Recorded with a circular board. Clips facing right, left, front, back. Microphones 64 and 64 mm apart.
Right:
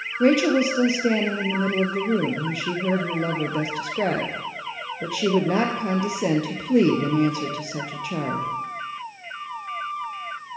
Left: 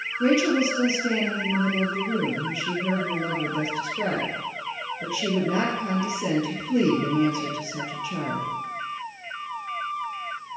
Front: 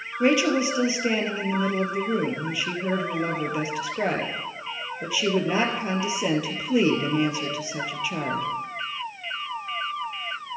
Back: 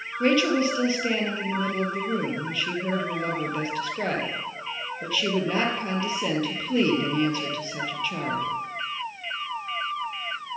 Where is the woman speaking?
80° right, 2.5 m.